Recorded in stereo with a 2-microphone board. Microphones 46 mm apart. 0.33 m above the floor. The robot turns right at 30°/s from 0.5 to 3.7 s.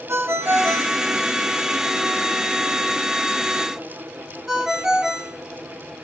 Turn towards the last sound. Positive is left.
turn(degrees=-10)  # may be behind; listen again after turning